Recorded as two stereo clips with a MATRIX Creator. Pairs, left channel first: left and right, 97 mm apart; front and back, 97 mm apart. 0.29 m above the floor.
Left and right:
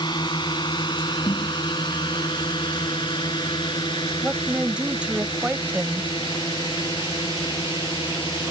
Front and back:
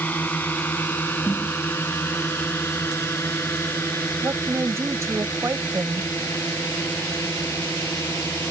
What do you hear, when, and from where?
0.0 s a drone: 70° left; by 8.5 s 60° left
1.2 s a snare drum: 75° left
4.2 s a woman speaking: 155° right